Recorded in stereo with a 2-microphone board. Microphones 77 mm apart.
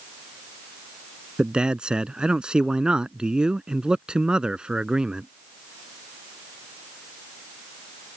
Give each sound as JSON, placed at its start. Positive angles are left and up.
{"t": 1.4, "sound": "a man speaking", "side_deg": -10}